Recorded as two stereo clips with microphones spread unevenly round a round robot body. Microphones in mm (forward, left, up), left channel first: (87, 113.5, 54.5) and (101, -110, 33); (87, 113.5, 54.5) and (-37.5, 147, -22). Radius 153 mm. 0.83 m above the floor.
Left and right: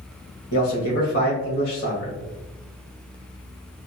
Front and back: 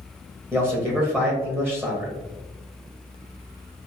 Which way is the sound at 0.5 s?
120° left.